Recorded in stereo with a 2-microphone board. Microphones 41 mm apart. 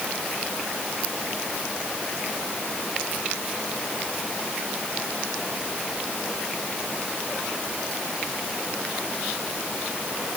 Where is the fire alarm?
No fire alarm in this recording.